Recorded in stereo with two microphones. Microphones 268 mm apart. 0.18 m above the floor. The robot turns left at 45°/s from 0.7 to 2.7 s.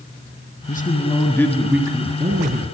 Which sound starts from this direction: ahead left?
A man speaking, at 0.7 s.